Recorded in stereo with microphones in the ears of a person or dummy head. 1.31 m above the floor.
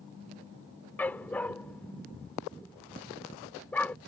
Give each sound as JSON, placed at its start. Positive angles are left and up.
{"t": 1.0, "sound": "a dog barking", "side_deg": 10}